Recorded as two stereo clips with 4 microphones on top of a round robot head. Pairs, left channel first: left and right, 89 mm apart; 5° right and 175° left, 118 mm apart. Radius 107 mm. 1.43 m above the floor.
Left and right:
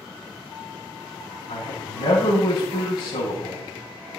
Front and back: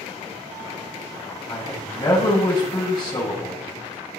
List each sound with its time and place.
1.5 s a man speaking: 65° left, 7.5 m